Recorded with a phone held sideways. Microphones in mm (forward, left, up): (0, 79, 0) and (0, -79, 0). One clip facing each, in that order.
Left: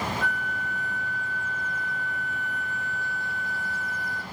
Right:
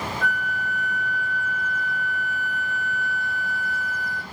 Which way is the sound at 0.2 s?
45° right (ahead or behind).